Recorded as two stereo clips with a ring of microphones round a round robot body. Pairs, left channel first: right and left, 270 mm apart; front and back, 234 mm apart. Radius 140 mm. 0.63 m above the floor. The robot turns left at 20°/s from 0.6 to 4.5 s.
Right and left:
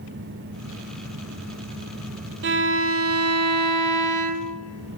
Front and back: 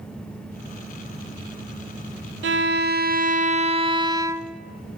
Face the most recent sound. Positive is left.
turn(degrees=100)